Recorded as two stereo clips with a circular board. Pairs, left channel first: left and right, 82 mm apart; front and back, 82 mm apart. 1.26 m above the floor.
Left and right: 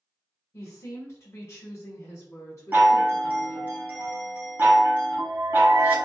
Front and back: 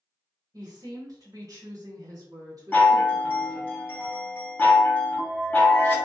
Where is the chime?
50° right, 0.8 m.